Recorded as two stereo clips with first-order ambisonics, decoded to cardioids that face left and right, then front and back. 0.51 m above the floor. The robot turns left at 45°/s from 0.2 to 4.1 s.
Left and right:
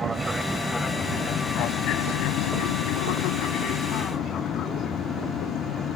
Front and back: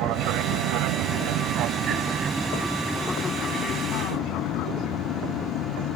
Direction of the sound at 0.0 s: 165° right.